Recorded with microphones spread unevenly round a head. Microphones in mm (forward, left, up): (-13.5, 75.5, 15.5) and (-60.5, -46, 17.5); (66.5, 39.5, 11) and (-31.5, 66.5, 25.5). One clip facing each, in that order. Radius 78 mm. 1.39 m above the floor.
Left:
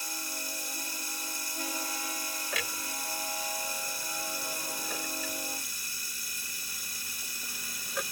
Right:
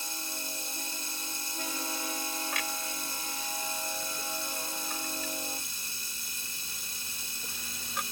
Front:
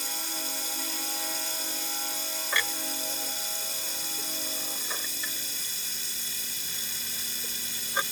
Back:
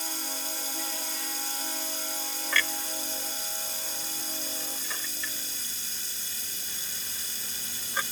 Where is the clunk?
60° left.